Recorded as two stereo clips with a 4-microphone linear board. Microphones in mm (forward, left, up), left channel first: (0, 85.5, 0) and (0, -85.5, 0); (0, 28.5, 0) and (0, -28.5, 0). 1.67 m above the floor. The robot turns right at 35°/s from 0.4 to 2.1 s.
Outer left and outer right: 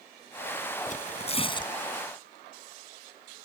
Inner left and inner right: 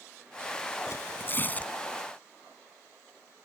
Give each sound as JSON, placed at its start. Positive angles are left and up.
{"t": 0.9, "sound": "tearing paper", "azimuth_deg": 125}